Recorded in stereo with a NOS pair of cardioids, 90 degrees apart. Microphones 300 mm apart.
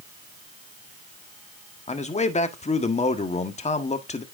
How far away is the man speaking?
About 1.6 m.